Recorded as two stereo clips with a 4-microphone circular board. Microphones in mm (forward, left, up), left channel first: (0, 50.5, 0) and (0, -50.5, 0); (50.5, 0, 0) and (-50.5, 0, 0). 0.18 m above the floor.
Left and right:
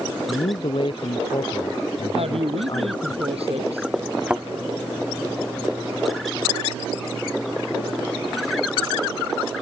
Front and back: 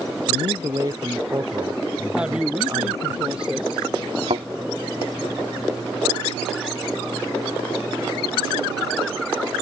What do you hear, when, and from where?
0.3 s a man speaking: 125° left
2.1 s a woman speaking: 100° right
4.3 s a thud: 170° right